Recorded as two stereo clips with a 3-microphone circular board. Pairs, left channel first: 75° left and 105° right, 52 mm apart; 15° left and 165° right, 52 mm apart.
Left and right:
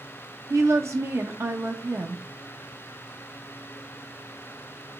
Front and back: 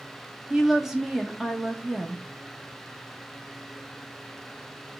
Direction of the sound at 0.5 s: 80° right.